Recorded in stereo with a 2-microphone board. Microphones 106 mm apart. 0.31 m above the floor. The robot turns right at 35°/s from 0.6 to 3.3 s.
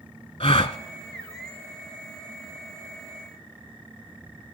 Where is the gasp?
65° left (ahead or behind), 0.7 m; by 0.8 s 70° left (ahead or behind), 0.7 m.